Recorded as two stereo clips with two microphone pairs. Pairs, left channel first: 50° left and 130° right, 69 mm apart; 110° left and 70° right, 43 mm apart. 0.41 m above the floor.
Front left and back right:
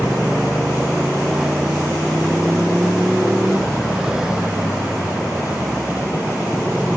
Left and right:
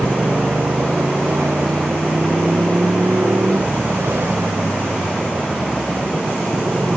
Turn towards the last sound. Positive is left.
turn(degrees=-50)